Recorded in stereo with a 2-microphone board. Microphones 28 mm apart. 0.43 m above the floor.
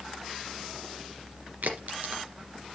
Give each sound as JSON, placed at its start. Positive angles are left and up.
{"t": 1.6, "sound": "a crack", "side_deg": -85, "distance_m": 3.0}